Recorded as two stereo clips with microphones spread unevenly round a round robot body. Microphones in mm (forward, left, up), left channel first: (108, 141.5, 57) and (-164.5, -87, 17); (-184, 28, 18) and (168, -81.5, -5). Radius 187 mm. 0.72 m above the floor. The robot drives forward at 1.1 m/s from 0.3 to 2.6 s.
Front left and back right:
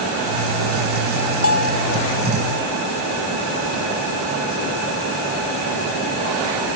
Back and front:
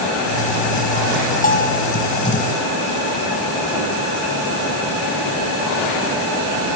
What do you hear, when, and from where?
1.4 s a bell: 95° left